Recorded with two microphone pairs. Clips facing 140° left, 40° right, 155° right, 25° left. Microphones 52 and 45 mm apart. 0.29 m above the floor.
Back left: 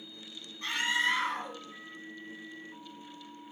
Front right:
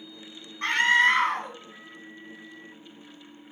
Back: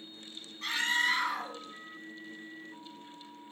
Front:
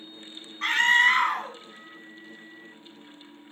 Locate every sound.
0.6 s a scream: 10° right, 2 m